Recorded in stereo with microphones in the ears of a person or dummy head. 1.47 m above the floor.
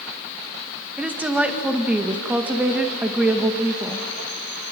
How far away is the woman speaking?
About 1.6 m.